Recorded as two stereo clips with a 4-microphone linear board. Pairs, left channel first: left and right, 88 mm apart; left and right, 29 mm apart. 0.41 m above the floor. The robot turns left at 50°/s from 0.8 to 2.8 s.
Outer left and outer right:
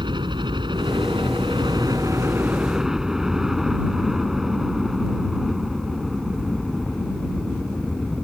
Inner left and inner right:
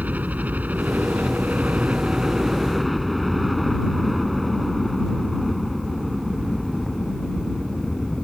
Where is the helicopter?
65° right (ahead or behind); by 8.2 s centre (ahead or behind).